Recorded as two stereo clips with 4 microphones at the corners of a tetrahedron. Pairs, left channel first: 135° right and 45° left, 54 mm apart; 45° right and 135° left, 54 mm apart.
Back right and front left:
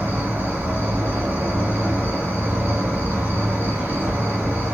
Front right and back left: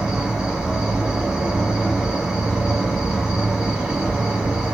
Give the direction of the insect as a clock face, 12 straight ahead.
10 o'clock.